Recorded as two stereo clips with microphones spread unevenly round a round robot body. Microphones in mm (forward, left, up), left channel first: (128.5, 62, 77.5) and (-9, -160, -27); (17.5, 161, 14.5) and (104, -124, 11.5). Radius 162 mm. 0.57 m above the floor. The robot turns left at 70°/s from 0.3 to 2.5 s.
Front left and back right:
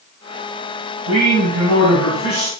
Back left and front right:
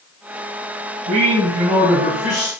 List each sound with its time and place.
1.1 s a man speaking: 100° right, 3 m; by 2.5 s 160° left, 3 m